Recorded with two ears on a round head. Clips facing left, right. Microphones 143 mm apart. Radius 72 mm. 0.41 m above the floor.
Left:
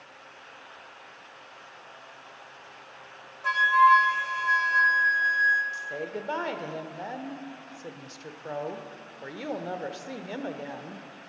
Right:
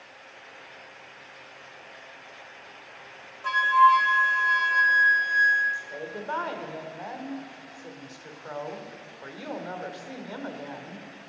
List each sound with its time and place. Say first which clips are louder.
3.4 s a flute: right 1 dB; 5° left (ahead or behind), 1.1 m
5.7 s a woman speaking: left 2 dB; 25° left (ahead or behind), 1.0 m